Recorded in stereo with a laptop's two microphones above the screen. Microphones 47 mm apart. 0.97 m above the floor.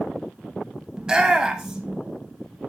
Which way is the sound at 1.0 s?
15° right (ahead or behind).